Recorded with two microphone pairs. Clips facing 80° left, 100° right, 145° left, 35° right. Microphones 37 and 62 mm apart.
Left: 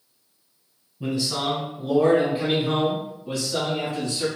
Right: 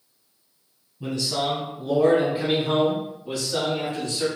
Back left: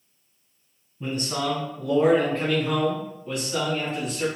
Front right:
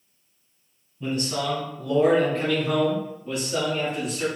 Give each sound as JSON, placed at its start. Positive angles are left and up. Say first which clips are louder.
{"t": 1.0, "sound": "a man speaking", "louder": "even, front right 1 dB", "azimuth_deg": 125, "distance_m": 1.5}